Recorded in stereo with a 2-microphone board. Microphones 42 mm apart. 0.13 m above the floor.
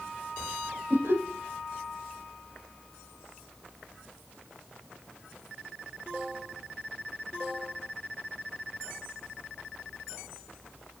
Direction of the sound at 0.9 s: 60° right (ahead or behind).